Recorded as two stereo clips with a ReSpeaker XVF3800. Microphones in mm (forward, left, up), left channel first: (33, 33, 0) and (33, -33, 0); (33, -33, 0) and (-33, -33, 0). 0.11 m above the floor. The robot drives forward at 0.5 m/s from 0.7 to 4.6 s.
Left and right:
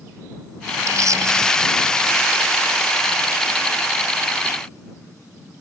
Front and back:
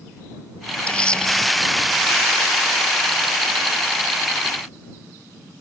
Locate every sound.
0.9 s a camera shutter: 70° right; by 1.5 s 75° right